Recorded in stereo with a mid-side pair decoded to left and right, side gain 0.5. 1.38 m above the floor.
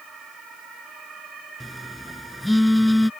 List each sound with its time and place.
1.6 s a phone buzzing: 10° left